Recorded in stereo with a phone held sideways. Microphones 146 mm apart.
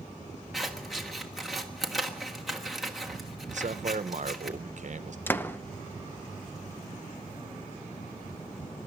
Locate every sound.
0.5 s scissors: centre (ahead or behind), 1.5 m
3.5 s a man speaking: 55° right (ahead or behind), 0.8 m
5.3 s a door slam: 15° left (ahead or behind), 0.6 m